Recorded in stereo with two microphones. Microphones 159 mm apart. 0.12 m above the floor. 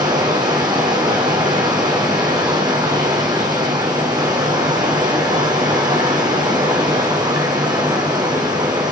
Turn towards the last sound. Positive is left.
turn(degrees=-25)  # may be behind; listen again after turning